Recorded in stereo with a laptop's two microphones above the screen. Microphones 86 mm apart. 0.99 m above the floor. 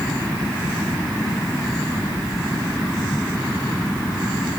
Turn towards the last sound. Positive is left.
No sound to turn to.